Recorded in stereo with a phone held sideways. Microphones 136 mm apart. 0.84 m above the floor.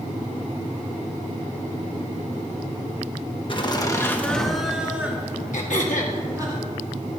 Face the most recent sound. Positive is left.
turn(degrees=65)  # may be behind; listen again after turning